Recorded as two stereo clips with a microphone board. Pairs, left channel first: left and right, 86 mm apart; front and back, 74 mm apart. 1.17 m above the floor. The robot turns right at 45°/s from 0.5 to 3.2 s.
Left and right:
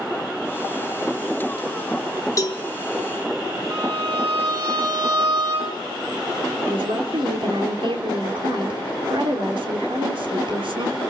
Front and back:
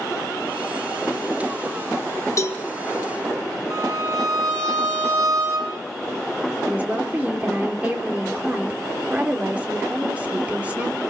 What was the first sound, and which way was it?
A cowbell, 40° left.